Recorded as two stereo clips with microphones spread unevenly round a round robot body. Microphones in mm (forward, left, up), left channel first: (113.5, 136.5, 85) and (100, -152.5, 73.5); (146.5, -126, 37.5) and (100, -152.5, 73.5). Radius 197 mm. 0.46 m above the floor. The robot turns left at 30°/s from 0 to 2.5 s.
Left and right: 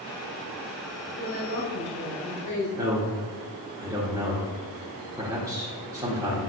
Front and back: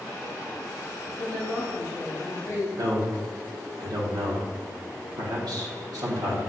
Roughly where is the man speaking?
Behind.